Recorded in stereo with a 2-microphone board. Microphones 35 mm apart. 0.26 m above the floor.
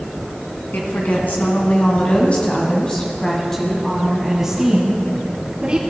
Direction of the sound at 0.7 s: 60° left (ahead or behind).